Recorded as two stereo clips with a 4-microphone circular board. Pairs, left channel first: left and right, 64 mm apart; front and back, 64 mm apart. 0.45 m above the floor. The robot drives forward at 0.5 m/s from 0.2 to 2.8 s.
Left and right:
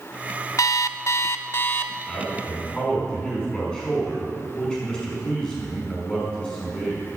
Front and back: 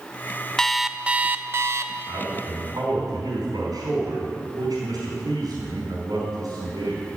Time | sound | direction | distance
0.6 | an alarm clock | 80° left | 0.5 m
2.1 | a man speaking | 165° left | 5 m